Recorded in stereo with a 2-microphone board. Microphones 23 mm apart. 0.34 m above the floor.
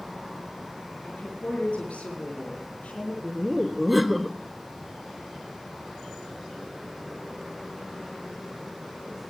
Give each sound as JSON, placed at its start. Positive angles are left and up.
{"t": 1.0, "sound": "a woman speaking", "side_deg": 70, "distance_m": 6.5}
{"t": 3.2, "sound": "laughter", "side_deg": -5, "distance_m": 0.9}